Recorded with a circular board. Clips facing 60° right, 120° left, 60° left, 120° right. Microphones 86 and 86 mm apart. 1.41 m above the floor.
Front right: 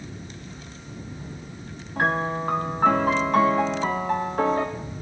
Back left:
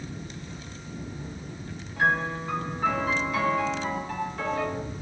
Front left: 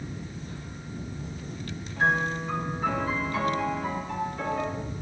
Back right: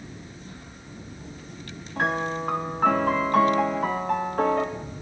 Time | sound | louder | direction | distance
2.0 | a piano | front right 2 dB, even | 100° right | 1.1 m